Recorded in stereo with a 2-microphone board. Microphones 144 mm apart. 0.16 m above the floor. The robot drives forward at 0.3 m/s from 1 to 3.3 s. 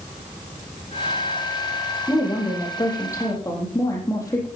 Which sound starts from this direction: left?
A woman speaking, at 2.1 s.